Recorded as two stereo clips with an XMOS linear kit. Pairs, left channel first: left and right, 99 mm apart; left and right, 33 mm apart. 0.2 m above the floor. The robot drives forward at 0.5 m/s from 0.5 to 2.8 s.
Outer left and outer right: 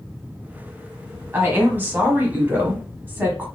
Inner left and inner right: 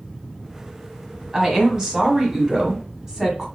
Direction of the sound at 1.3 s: 20° right (ahead or behind).